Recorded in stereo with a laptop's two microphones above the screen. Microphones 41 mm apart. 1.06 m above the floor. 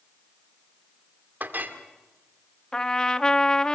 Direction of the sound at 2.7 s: 15° left (ahead or behind).